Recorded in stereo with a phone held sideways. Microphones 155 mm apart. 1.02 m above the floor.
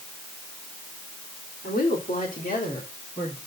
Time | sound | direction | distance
1.6 | a woman speaking | 65° left (ahead or behind) | 3 m